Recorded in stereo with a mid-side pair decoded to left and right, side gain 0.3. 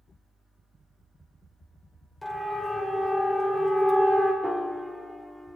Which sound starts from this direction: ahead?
A piano, at 4.4 s.